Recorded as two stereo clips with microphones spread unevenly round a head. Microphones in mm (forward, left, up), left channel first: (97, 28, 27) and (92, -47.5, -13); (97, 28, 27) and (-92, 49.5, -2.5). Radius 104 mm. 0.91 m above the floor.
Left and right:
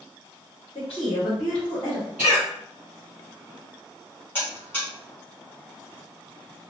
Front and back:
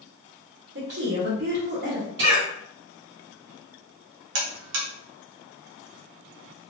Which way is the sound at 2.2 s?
165° right.